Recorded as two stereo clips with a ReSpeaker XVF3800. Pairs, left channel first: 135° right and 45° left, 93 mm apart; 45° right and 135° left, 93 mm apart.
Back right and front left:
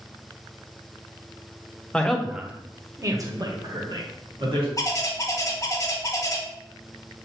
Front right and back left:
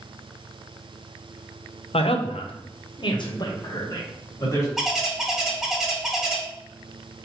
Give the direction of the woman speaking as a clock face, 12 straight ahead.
2 o'clock.